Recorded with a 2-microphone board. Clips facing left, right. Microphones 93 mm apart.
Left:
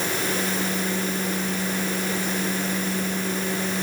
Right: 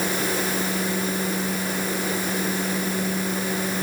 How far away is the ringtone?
I don't hear a ringtone.